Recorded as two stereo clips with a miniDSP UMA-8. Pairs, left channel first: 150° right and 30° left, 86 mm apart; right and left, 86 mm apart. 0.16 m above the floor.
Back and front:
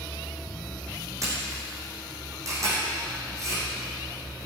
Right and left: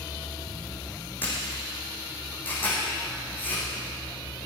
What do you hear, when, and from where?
1.2 s a camera shutter: 25° right, 5.5 m